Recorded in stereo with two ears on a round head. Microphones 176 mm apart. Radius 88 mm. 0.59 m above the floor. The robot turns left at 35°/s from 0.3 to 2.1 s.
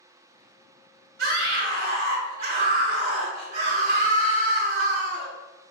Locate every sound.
1.2 s a scream: 85° right, 2 m; by 5.3 s 115° right, 2 m